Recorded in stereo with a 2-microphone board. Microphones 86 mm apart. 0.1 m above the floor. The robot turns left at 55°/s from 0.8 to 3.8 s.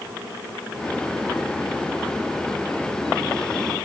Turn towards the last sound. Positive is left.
No sound to turn to.